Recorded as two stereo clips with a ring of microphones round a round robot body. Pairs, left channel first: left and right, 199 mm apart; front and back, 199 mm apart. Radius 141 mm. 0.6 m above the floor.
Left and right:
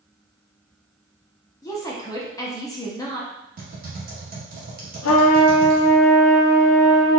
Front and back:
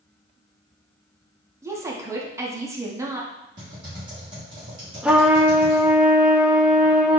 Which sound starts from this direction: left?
A trumpet, at 5.0 s.